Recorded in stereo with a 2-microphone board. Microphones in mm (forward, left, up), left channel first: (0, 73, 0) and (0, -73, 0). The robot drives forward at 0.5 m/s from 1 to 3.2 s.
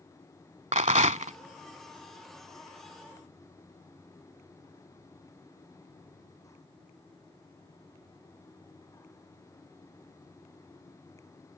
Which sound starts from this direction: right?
A rattle, at 0.7 s.